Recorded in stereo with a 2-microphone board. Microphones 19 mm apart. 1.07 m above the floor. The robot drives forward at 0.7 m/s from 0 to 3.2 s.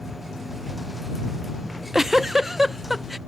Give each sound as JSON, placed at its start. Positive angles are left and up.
{"t": 1.6, "sound": "a giggle", "side_deg": -25}